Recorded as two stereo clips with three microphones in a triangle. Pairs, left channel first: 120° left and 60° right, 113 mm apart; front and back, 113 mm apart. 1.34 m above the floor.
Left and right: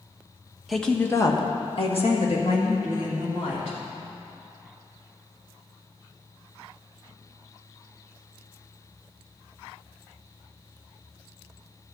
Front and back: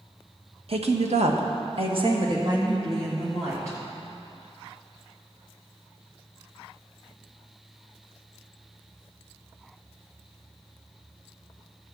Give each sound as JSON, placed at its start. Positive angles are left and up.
{"t": 0.7, "sound": "a woman speaking", "azimuth_deg": -150, "distance_m": 1.0}